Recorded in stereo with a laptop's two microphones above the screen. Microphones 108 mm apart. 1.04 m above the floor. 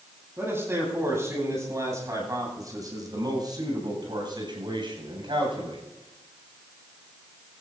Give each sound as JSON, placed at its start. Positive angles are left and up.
{"t": 0.4, "sound": "a man speaking", "side_deg": -20, "distance_m": 9.5}